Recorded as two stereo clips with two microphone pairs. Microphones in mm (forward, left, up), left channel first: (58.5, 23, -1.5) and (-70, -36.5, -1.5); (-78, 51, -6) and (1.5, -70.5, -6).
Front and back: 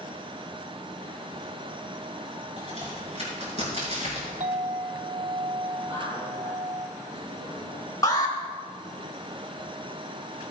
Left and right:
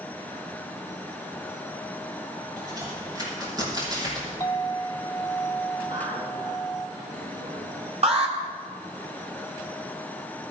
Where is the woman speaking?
100° right, 4.5 m.